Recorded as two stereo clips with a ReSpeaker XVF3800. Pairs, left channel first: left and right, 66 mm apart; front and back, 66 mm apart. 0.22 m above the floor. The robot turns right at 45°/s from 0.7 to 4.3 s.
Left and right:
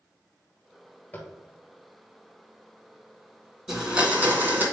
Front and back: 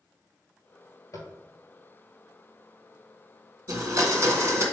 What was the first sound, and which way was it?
Tapping, 30° left.